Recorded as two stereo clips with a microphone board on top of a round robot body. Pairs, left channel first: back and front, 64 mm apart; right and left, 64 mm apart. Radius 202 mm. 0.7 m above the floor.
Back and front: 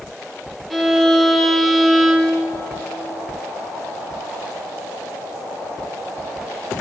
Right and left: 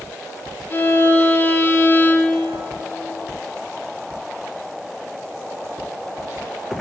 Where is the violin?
90° right, 1.0 m.